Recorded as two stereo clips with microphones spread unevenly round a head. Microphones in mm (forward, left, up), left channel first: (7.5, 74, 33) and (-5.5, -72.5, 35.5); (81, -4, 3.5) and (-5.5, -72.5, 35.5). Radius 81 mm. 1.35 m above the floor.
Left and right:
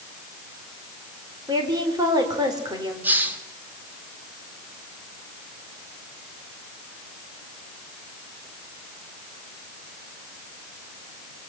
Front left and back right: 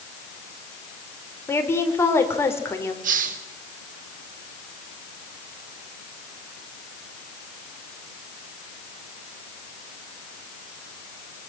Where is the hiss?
175° right, 1.3 m.